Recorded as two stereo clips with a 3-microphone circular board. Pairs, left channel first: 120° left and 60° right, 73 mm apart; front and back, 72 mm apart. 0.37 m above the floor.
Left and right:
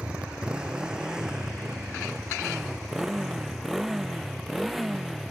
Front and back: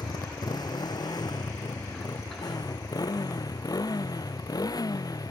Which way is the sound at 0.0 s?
15° left.